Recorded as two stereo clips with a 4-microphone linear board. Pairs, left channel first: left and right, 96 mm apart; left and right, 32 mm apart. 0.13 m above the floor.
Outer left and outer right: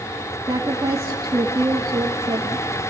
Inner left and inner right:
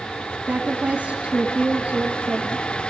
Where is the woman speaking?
35° right (ahead or behind), 1.8 m.